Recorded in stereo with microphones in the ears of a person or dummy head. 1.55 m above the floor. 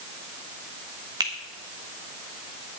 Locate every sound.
1.2 s a finger snap: 25° right (ahead or behind), 1.5 m